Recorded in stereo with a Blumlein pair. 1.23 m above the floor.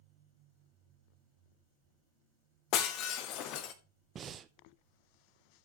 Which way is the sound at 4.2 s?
25° right.